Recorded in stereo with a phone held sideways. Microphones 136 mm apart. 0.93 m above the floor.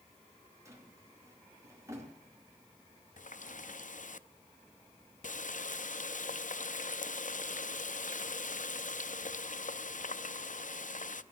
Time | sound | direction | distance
0.7 | a drawer | 20° right (ahead or behind) | 4 m
3.2 | a running tap | 70° left (ahead or behind) | 0.5 m